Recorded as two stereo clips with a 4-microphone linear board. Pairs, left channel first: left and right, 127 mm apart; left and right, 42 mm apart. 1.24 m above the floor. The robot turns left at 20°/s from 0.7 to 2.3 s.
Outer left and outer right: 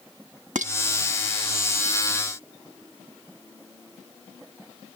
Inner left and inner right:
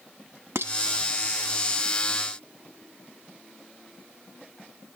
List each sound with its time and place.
0.6 s dishes clattering: 75° right (ahead or behind)